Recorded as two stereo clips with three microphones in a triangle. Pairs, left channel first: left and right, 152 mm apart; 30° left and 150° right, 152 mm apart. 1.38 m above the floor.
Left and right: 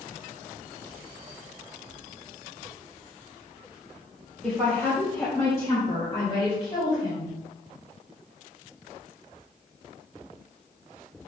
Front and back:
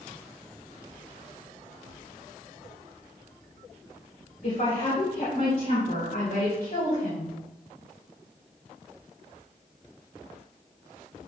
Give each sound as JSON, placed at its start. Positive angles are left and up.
{"t": 4.4, "sound": "a woman speaking", "azimuth_deg": 5, "distance_m": 4.0}